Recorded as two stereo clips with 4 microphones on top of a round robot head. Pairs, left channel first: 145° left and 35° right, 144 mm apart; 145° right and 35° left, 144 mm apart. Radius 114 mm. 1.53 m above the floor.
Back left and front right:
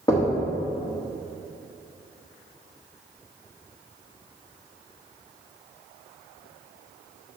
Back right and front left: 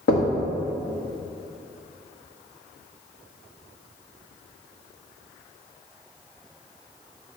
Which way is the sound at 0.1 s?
145° right.